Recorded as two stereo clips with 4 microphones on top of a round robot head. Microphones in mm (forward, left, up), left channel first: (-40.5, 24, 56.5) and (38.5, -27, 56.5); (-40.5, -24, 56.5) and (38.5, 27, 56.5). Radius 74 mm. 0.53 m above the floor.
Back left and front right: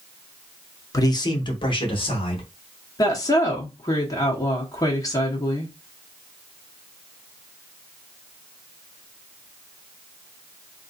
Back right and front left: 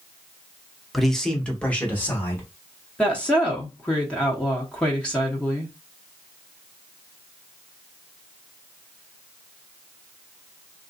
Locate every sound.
0.9 s a man speaking: 120° left, 0.9 m; by 2.4 s 145° left, 1.6 m
3.0 s a woman speaking: 140° left, 1.0 m